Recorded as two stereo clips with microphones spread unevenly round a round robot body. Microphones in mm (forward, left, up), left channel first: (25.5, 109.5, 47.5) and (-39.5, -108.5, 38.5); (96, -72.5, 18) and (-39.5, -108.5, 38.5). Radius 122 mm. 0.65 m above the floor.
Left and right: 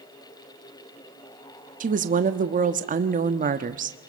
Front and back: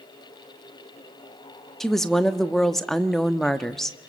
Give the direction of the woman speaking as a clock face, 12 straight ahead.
2 o'clock.